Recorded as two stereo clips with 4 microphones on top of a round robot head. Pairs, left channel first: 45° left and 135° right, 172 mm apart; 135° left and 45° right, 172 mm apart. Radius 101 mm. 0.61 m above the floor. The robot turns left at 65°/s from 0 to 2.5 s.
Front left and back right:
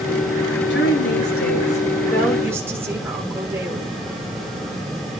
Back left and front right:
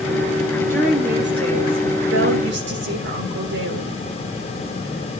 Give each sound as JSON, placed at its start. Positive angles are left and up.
{"t": 0.7, "sound": "a woman speaking", "azimuth_deg": 60, "distance_m": 1.8}